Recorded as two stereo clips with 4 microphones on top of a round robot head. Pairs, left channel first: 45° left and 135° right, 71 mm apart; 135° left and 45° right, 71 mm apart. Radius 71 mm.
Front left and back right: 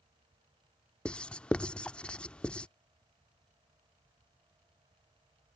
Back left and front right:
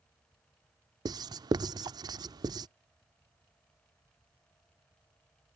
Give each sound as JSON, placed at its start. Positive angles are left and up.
{"t": 1.1, "sound": "writing", "azimuth_deg": -30}